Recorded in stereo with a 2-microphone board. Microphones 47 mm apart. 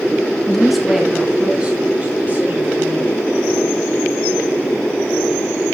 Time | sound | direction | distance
0.5 | a woman speaking | 10° left (ahead or behind) | 1.9 m